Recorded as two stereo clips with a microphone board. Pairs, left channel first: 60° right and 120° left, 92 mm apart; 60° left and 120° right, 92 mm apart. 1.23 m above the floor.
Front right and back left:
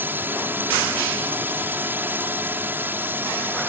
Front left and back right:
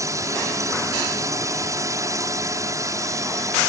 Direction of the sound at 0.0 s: 175° right.